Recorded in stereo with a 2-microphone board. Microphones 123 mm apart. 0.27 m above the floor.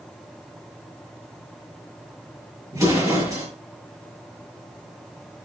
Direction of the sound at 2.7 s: 25° right (ahead or behind).